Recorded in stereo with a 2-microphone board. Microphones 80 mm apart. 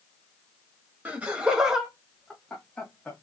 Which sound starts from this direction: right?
Laughter, at 1.1 s.